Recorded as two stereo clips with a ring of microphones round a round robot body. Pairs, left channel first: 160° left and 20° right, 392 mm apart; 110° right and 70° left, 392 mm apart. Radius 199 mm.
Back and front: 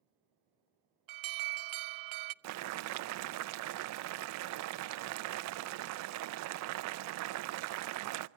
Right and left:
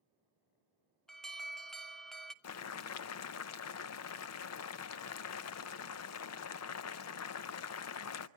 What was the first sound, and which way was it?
An alarm, 25° right.